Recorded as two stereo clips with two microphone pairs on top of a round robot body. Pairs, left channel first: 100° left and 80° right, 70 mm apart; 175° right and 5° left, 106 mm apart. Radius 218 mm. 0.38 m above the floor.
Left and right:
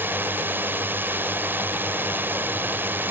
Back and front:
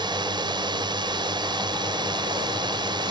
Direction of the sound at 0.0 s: 25° right.